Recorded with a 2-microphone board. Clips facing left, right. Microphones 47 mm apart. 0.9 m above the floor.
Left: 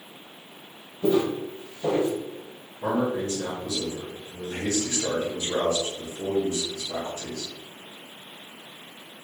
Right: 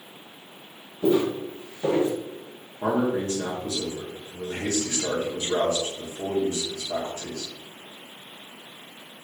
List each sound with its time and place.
1.0 s footsteps: 20° right (ahead or behind), 1.8 m; by 2.1 s 25° right (ahead or behind), 0.9 m
2.8 s a man speaking: 40° right (ahead or behind), 1.0 m